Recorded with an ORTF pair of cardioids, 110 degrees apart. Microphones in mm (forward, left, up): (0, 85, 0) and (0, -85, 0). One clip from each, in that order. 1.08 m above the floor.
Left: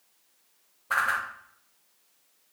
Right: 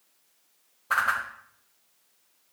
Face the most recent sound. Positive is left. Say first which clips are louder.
# right 1 dB
turn(degrees=-15)